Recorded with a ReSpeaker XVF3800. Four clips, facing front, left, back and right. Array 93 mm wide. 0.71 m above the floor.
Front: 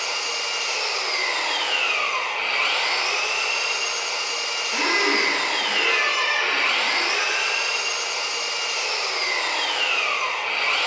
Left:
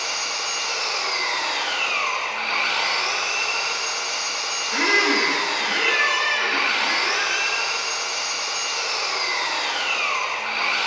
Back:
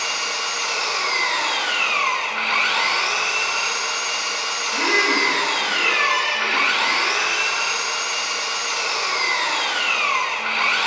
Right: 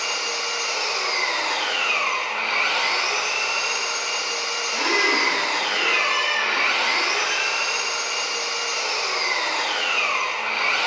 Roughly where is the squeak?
Left.